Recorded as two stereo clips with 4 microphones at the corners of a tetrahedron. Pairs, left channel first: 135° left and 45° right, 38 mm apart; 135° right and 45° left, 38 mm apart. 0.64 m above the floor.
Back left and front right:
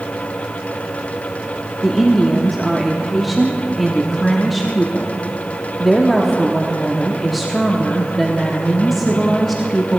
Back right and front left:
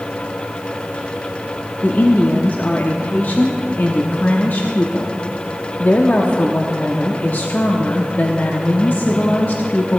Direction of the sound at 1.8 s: 135° right.